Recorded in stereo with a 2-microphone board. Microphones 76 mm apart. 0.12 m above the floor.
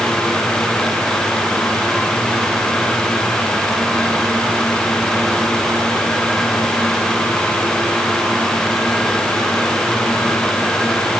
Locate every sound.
Only background noise.